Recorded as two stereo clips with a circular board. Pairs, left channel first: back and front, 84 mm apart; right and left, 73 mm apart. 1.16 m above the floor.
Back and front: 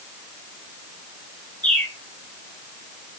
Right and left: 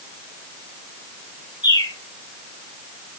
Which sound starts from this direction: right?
A bird, at 1.6 s.